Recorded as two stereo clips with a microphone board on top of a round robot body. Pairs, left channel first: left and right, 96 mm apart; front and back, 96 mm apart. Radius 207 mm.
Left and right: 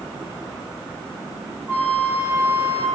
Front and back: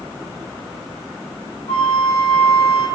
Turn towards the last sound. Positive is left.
turn(degrees=-20)